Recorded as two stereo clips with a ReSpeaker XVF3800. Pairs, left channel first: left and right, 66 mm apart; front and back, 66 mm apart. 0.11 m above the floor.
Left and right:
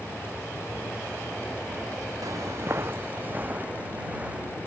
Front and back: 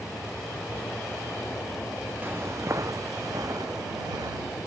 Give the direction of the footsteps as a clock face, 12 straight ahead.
4 o'clock.